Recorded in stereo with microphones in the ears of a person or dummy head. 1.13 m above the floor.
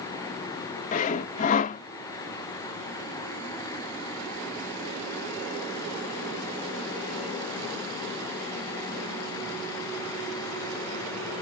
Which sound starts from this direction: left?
Sawing, at 0.9 s.